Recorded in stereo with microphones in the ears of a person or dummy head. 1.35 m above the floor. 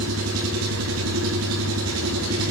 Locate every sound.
0.0 s an engine running: 75° right (ahead or behind), 3 m